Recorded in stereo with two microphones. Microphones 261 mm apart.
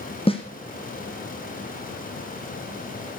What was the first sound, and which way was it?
A snare drum, 20° left (ahead or behind).